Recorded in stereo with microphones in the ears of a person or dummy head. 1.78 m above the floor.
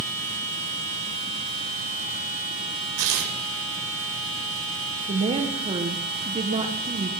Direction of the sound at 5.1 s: 25° right (ahead or behind).